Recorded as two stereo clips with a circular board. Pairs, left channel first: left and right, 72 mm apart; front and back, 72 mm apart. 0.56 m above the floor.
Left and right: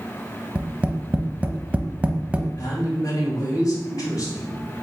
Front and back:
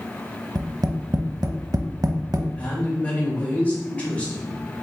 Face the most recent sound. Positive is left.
turn(degrees=70)